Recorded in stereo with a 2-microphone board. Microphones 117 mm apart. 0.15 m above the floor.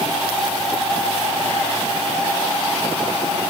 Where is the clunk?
I don't hear a clunk.